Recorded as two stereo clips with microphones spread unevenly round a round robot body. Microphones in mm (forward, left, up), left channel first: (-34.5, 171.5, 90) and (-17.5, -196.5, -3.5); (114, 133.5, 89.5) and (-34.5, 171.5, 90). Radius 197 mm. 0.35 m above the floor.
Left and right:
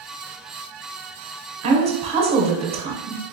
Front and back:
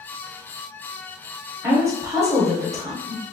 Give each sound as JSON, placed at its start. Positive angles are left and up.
{"t": 1.6, "sound": "a woman speaking", "azimuth_deg": -135, "distance_m": 1.2}